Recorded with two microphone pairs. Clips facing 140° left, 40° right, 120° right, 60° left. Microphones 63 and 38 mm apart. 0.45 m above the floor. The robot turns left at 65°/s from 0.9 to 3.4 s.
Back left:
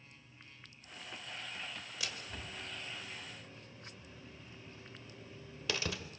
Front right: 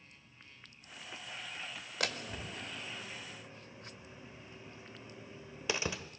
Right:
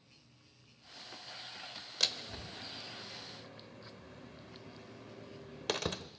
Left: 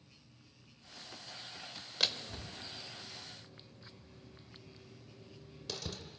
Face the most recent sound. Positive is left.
turn(degrees=-110)